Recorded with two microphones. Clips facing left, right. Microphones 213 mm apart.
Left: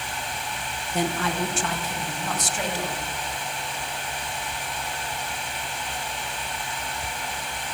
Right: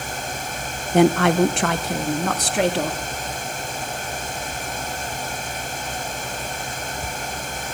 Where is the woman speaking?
65° right (ahead or behind), 0.7 m; by 3.0 s 70° right (ahead or behind), 2 m.